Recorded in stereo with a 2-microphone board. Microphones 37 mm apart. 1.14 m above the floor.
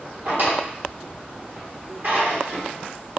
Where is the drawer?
60° right (ahead or behind), 1.2 m.